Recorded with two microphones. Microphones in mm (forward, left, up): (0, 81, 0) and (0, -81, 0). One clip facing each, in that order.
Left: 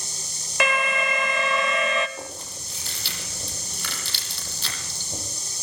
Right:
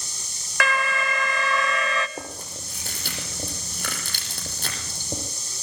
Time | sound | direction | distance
0.6 | an alarm | 20° left (ahead or behind) | 1.7 m
2.2 | chewing | 45° right (ahead or behind) | 8 m